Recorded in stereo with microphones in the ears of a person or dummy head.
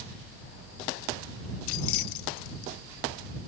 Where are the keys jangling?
80° left.